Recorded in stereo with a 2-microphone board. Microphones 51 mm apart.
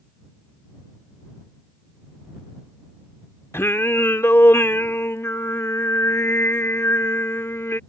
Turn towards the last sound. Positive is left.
turn(degrees=55)  # may be behind; listen again after turning